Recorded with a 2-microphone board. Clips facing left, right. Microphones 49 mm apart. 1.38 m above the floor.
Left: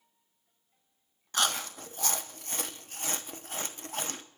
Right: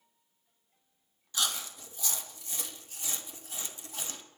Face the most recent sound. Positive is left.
turn(degrees=50)  # may be behind; listen again after turning